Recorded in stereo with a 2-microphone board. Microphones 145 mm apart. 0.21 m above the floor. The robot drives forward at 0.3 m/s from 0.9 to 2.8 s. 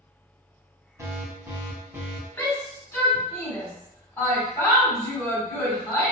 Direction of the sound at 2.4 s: 20° left (ahead or behind).